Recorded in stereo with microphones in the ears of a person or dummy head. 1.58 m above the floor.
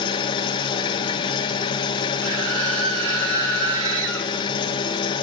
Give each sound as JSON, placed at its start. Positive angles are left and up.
{"t": 0.0, "sound": "an engine running", "side_deg": 30, "distance_m": 1.7}
{"t": 2.2, "sound": "a scream", "side_deg": -70, "distance_m": 5.5}